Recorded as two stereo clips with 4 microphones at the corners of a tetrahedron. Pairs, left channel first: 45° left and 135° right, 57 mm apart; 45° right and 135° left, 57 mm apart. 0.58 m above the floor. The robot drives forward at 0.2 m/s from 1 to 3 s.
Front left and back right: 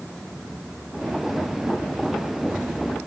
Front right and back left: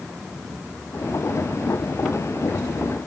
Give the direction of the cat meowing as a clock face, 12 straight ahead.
No cat meowing in this recording.